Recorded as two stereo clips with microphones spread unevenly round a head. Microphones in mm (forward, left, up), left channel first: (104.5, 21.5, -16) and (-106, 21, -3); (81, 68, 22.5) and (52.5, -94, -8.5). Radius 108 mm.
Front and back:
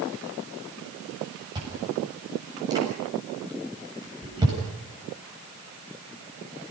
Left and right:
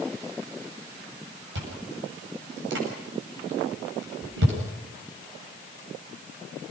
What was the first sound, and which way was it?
Chewing, 105° right.